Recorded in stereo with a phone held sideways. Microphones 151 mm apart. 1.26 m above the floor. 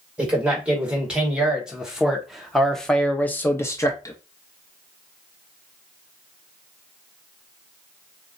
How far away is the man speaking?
About 2 m.